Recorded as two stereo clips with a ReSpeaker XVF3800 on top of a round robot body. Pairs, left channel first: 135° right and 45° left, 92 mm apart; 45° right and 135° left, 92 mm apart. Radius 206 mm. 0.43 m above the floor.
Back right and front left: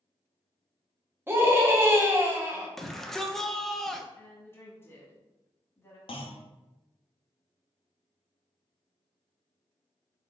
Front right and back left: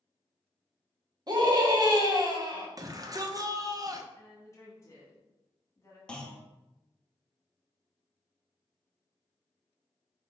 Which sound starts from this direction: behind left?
A shout, at 2.8 s.